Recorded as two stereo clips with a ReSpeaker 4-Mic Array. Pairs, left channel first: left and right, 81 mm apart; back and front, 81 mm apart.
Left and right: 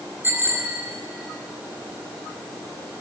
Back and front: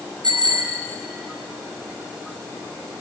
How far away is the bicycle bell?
About 4.5 m.